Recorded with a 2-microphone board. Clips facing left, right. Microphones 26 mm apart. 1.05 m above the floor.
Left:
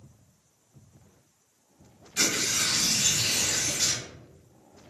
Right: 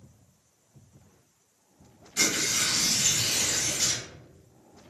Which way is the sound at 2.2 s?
35° left (ahead or behind).